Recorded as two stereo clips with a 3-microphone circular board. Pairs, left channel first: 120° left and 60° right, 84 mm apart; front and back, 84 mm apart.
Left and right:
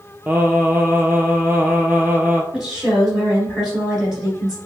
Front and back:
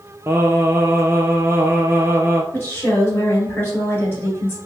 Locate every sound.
0.3 s singing: 125° right, 0.5 m
2.5 s a woman speaking: 15° left, 1.6 m